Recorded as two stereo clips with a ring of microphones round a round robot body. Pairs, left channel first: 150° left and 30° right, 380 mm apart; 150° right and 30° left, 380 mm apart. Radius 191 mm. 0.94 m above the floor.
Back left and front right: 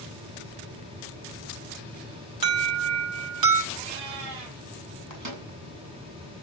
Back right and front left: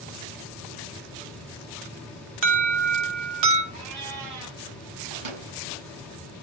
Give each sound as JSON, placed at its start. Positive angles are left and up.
{"t": 2.4, "sound": "an alarm", "azimuth_deg": 5, "distance_m": 4.5}
{"t": 3.7, "sound": "a cat meowing", "azimuth_deg": 0, "distance_m": 8.0}
{"t": 5.1, "sound": "a microwave", "azimuth_deg": 20, "distance_m": 9.0}